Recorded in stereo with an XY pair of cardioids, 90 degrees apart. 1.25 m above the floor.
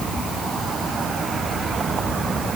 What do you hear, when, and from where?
Only background noise.